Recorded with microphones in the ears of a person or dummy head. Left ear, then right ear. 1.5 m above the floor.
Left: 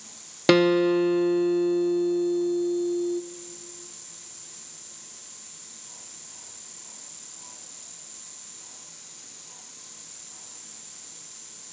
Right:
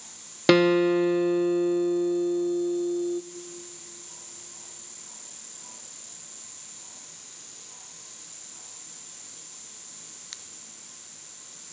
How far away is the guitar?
About 0.6 m.